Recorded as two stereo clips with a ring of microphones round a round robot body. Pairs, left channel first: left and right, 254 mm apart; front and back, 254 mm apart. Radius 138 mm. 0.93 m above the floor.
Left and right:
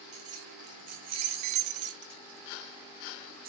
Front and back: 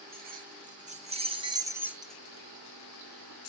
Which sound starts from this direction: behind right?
Keys jangling, at 0.1 s.